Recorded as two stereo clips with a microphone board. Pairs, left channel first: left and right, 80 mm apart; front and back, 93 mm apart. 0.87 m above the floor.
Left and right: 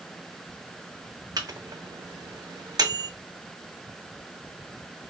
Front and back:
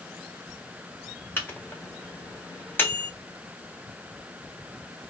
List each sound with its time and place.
1.4 s a microwave: 65° right, 0.9 m